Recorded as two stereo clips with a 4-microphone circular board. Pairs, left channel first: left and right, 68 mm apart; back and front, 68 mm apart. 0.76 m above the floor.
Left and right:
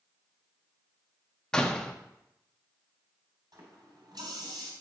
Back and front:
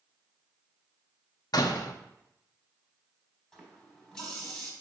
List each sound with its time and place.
1.5 s a door slam: 170° left, 0.7 m
3.5 s a running tap: 100° right, 3 m